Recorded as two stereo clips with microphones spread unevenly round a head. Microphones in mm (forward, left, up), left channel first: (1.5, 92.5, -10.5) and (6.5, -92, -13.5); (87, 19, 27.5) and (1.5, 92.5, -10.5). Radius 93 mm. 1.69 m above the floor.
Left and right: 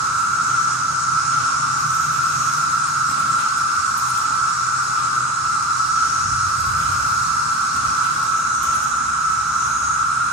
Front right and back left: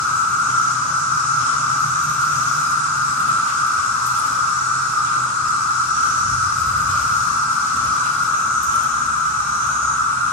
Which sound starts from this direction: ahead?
An insect, at 0.0 s.